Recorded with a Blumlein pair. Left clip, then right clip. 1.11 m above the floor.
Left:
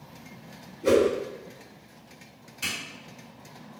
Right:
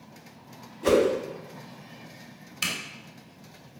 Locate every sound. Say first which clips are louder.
0.8 s a whoosh: even; 55° right, 0.9 m
2.6 s a zipper: right 2 dB; 55° right, 0.8 m